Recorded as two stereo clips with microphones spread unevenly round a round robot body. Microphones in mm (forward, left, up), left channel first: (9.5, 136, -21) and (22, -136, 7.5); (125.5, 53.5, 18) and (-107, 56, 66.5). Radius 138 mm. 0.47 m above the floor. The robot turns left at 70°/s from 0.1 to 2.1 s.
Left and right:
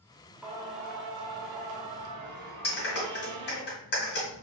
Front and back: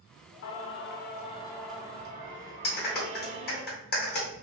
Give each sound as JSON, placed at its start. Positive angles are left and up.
{"t": 0.4, "sound": "singing", "azimuth_deg": 5, "distance_m": 0.7}
{"t": 2.6, "sound": "a clap", "azimuth_deg": 40, "distance_m": 1.9}